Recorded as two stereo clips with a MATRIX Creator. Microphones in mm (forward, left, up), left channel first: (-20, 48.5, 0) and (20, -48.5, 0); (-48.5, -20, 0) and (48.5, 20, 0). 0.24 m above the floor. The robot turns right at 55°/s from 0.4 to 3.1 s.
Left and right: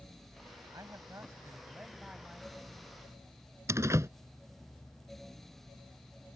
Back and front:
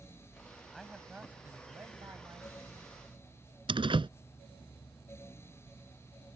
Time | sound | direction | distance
0.7 | a man speaking | 70° right | ?
3.7 | a door slam | 10° right | ?